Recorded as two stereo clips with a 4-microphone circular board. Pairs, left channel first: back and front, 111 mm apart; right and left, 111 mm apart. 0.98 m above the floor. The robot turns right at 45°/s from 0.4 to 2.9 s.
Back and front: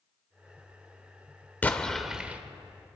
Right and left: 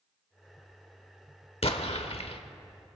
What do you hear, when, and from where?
1.6 s an explosion: 105° right, 1.2 m; by 2.4 s 70° right, 1.2 m